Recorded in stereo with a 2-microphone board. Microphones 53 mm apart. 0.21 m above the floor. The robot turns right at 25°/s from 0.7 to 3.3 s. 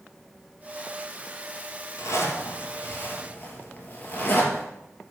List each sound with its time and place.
2.0 s a zipper: 65° left (ahead or behind), 2.5 m; by 4.6 s 35° left (ahead or behind), 2.5 m